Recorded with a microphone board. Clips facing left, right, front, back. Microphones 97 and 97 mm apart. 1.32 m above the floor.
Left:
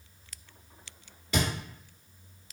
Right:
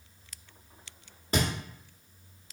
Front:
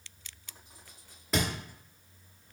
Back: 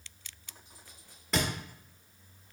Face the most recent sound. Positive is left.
turn(degrees=-90)